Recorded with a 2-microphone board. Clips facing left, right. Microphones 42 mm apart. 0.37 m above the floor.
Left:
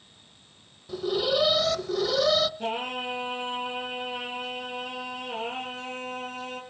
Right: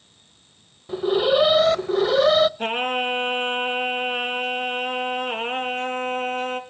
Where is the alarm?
40° right (ahead or behind), 0.8 m.